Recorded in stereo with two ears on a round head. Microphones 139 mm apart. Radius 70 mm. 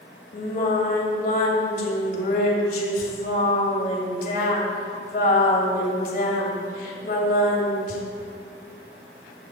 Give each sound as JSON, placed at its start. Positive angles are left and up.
{"t": 0.3, "sound": "singing", "side_deg": 60, "distance_m": 2.5}